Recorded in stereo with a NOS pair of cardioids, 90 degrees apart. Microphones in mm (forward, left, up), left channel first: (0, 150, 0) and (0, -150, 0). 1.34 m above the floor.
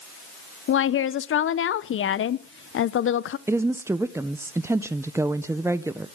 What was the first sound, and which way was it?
A woman speaking, 45° left.